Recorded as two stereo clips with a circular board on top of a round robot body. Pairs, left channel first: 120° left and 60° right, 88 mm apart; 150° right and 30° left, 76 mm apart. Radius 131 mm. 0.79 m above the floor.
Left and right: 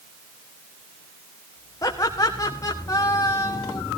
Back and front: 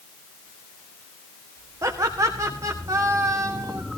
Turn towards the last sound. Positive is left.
turn(degrees=75)